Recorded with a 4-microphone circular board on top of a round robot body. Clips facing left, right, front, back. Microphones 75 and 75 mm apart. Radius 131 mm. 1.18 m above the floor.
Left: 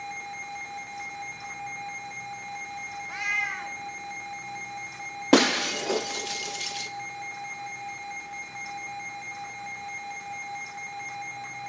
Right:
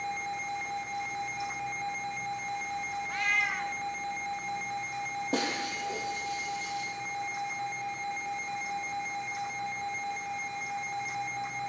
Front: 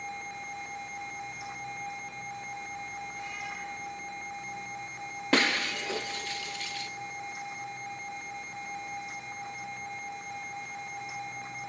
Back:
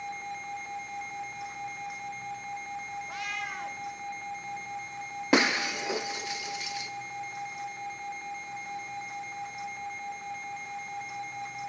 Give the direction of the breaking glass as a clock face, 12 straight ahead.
8 o'clock.